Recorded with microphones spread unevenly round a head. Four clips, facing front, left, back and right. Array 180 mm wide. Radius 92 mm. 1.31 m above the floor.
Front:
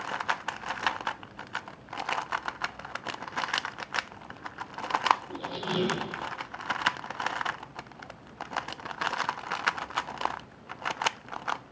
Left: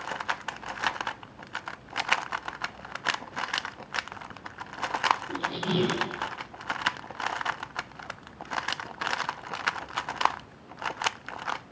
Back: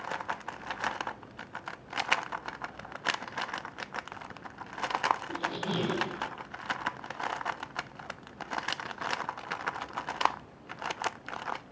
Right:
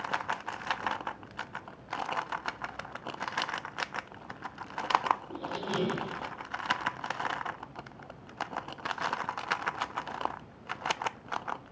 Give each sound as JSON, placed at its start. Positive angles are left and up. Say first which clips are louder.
{"t": 5.3, "sound": "a squeak", "louder": "left 5 dB, even", "azimuth_deg": 100, "distance_m": 8.0}